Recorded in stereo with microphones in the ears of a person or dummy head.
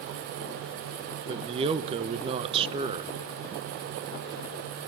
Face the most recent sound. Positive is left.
turn(degrees=-25)  # may be behind; listen again after turning